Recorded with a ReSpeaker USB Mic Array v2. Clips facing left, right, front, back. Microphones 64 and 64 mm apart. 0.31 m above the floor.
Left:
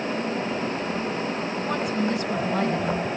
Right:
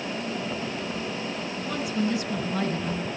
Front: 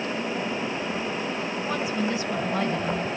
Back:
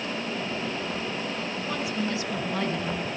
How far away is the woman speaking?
About 3 m.